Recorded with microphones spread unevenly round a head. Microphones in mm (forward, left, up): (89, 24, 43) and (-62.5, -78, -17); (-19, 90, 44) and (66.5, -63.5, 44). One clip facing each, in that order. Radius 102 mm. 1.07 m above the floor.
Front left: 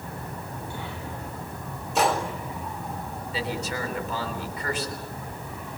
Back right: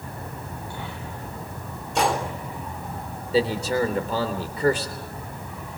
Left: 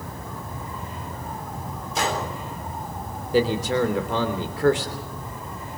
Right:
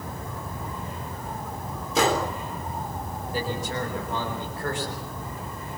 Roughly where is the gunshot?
Ahead right.